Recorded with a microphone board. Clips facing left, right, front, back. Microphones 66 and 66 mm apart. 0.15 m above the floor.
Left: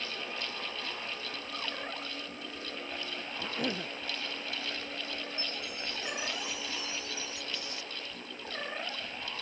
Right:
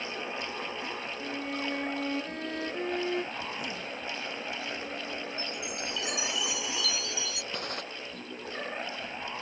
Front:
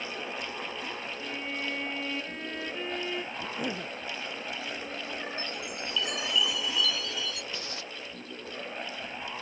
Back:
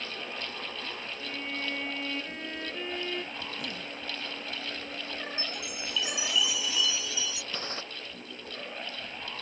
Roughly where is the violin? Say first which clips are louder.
Right 6 dB, even; right.